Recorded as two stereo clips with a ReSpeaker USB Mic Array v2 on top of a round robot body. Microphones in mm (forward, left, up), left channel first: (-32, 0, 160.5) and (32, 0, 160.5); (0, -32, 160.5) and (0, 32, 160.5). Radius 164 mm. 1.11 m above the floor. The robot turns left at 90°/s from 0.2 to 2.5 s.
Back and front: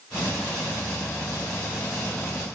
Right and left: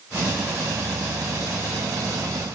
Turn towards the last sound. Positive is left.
No sound to turn to.